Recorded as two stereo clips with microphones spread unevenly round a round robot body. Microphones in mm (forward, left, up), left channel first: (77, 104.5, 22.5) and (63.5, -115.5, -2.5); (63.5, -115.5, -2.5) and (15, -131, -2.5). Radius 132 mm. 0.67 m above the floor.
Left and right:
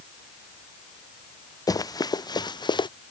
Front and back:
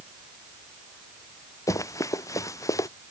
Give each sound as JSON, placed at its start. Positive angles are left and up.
{"t": 1.7, "sound": "running footsteps", "azimuth_deg": 15}